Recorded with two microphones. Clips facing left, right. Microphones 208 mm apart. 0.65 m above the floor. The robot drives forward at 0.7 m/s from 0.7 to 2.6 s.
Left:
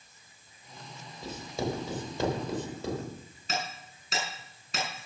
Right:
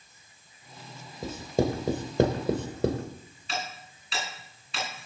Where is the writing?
50° right (ahead or behind), 2.5 m; by 3.0 s 65° right (ahead or behind), 2 m.